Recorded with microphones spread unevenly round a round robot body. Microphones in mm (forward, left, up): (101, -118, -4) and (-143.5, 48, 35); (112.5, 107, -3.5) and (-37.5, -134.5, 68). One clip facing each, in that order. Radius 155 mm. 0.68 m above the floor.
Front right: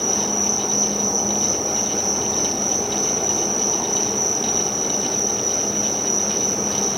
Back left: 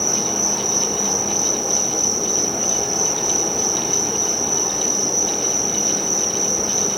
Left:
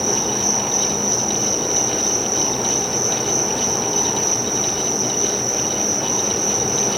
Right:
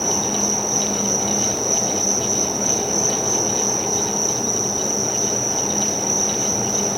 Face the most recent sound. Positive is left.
turn(degrees=-125)